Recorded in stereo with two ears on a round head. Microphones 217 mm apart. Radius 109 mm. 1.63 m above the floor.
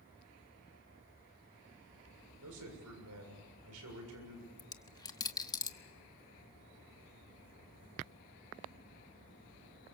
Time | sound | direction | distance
2.4 | a man speaking | 75° right (ahead or behind) | 7 m
4.6 | a dropped coin | 15° left (ahead or behind) | 1.1 m